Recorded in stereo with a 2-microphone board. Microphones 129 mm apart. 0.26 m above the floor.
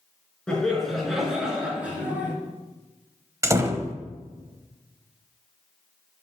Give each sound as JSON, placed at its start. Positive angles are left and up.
{"t": 0.5, "sound": "laughter", "side_deg": 5, "distance_m": 3.0}
{"t": 3.4, "sound": "a door slam", "side_deg": -25, "distance_m": 0.9}